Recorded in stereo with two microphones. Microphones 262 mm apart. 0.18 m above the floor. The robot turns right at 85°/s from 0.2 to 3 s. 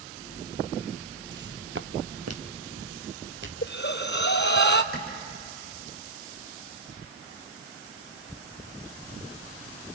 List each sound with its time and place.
1.3 s footsteps: 55° right (ahead or behind), 0.6 m; by 3.5 s 50° right (ahead or behind), 3 m
3.6 s breathing: 50° left (ahead or behind), 0.9 m
4.9 s a clap: 40° left (ahead or behind), 8 m